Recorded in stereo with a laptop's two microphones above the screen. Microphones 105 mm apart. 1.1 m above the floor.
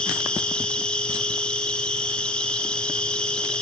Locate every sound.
0.0 s an insect: 10° left (ahead or behind), 1.8 m